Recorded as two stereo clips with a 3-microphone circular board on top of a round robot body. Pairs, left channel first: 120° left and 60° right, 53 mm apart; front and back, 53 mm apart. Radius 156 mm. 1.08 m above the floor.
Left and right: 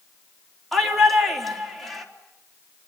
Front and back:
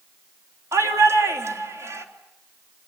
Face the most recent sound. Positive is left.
turn(degrees=-150)